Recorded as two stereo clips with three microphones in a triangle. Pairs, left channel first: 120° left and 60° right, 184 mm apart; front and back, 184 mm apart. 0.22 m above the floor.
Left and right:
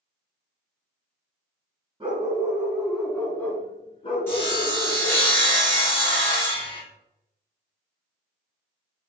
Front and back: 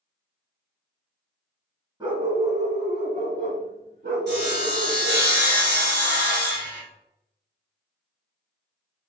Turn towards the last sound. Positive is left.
turn(degrees=-160)